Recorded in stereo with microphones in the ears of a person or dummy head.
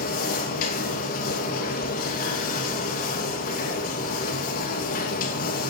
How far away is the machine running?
About 2.5 m.